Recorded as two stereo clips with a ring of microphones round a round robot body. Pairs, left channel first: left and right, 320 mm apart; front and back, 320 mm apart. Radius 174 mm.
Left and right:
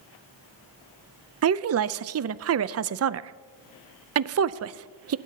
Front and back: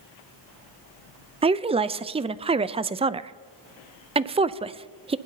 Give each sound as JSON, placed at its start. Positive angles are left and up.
{"t": 1.4, "sound": "a woman speaking", "azimuth_deg": -110, "distance_m": 0.6}